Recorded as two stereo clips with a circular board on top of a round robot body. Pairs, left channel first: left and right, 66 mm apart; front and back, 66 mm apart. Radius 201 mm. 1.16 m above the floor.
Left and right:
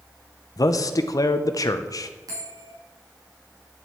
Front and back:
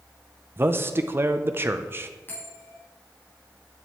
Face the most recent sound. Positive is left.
turn(degrees=-60)